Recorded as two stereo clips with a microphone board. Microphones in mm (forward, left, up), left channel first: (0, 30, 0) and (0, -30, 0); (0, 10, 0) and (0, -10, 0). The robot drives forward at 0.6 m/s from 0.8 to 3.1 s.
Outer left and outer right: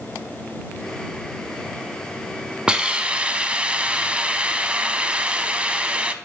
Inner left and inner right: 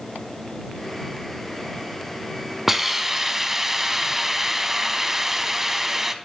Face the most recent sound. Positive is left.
turn(degrees=-20)  # may be behind; listen again after turning